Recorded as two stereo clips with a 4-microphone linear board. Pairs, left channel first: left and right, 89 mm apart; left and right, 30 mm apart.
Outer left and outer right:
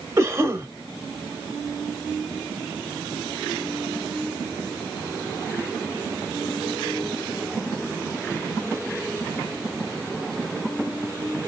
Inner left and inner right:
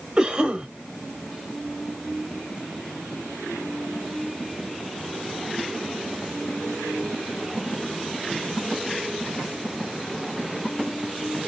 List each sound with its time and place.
0.2 s a cough: 30° right (ahead or behind), 1.2 m